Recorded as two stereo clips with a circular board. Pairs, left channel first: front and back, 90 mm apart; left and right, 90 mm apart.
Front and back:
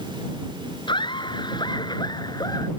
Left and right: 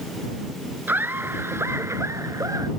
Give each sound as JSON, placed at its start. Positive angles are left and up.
{"t": 0.9, "sound": "laughter", "azimuth_deg": -20}